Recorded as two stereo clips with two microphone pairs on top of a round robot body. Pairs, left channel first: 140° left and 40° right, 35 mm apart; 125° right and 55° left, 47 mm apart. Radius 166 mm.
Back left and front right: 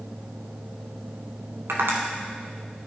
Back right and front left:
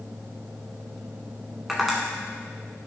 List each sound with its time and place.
1.7 s tapping: 25° right, 0.9 m